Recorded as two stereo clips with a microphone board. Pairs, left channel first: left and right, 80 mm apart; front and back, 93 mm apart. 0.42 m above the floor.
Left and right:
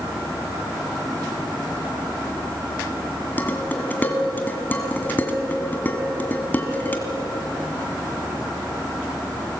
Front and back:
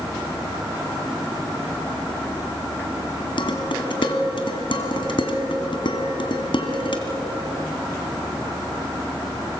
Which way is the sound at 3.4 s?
25° left.